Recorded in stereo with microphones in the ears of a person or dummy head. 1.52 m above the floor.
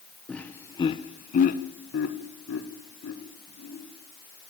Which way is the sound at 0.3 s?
5° left (ahead or behind).